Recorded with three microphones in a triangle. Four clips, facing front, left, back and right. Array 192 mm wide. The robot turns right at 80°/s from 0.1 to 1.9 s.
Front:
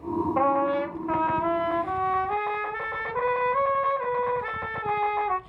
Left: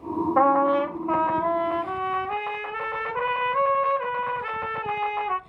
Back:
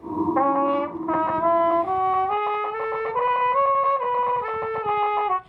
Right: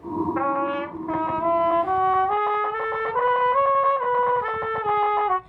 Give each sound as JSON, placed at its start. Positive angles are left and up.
{"t": 0.4, "sound": "a trumpet", "azimuth_deg": 105, "distance_m": 0.9}